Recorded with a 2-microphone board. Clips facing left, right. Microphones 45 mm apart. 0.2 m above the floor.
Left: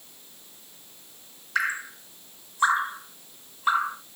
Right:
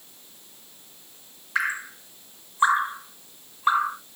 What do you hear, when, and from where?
1.6 s dripping: 20° right (ahead or behind), 1.7 m